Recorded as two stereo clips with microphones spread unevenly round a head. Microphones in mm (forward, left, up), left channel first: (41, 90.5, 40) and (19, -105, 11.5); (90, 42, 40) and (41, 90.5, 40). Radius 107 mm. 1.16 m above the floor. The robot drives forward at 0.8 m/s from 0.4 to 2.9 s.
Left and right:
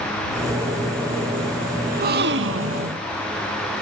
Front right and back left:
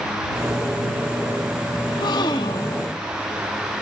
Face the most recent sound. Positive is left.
turn(degrees=-110)